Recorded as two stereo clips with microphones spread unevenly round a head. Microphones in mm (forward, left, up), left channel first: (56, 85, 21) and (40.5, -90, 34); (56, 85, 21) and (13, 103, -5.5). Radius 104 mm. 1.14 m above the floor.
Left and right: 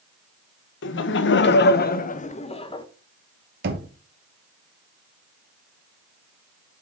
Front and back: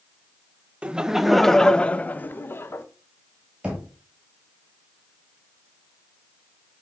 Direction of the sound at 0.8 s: 100° left.